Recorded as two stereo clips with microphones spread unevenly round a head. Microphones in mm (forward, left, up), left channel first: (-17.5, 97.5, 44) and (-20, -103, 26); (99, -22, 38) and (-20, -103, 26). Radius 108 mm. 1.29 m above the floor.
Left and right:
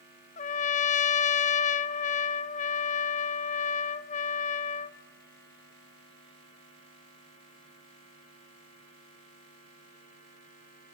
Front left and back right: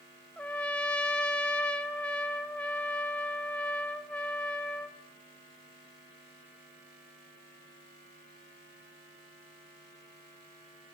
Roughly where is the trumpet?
Left.